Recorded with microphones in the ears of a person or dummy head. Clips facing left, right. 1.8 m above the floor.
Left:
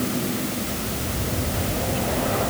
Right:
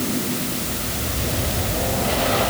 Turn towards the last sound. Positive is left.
No sound to turn to.